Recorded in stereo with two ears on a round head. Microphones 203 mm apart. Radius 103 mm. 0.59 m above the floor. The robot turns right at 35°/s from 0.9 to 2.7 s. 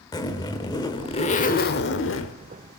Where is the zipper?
20° left, 1.2 m; by 2.3 s 70° left, 1.2 m.